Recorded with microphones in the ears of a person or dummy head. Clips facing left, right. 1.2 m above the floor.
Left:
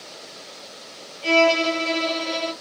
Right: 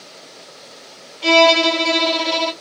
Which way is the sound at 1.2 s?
75° right (ahead or behind).